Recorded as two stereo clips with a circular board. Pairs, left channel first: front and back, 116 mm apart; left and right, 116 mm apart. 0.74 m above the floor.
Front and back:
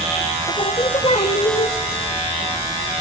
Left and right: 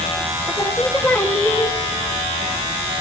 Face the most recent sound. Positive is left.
turn(degrees=20)